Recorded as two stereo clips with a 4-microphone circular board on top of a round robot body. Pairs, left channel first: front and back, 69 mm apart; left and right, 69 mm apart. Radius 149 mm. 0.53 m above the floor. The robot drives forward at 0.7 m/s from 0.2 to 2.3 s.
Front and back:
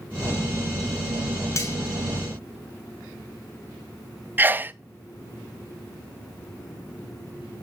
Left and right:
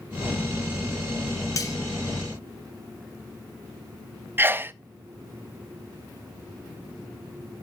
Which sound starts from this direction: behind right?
A sneeze, at 4.4 s.